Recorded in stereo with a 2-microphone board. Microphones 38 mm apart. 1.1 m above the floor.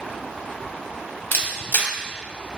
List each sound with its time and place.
1.3 s a camera shutter: 55° left (ahead or behind), 0.7 m